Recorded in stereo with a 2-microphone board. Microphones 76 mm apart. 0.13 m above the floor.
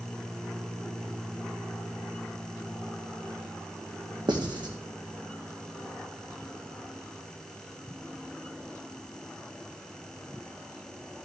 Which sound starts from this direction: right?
Writing, at 4.3 s.